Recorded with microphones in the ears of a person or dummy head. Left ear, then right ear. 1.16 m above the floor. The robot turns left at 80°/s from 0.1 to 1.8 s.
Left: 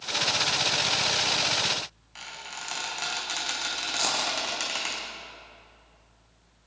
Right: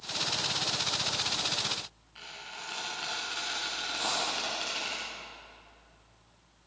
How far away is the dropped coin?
About 4 m.